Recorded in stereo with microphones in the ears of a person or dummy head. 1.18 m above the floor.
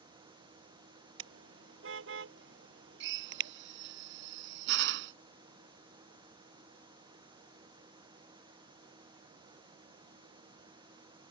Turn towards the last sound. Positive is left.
turn(degrees=-70)  # may be behind; listen again after turning